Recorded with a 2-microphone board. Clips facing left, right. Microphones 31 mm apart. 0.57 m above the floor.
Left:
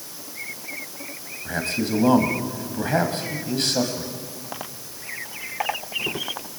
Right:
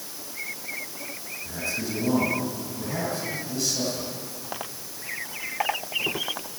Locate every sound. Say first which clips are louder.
1.4 s a man speaking: left 6 dB; 60° left (ahead or behind), 3.5 m